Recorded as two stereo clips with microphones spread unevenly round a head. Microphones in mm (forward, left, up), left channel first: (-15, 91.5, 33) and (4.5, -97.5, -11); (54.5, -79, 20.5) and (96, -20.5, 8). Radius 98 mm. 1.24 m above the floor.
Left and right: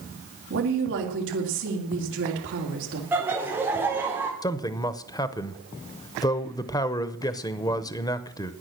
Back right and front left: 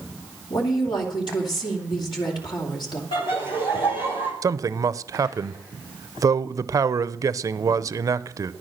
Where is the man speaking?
20° left, 0.7 m.